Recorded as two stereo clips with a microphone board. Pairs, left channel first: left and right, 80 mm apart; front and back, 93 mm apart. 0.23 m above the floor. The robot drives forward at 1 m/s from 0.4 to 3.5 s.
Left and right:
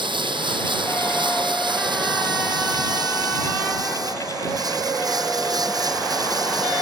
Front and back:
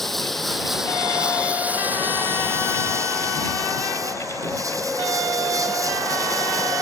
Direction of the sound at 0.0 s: 90° right.